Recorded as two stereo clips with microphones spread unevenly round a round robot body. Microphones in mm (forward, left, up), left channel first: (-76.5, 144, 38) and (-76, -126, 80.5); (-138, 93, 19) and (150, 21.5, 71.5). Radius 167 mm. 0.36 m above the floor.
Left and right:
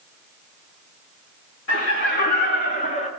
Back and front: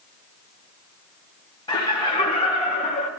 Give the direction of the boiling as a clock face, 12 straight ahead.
I don't hear boiling.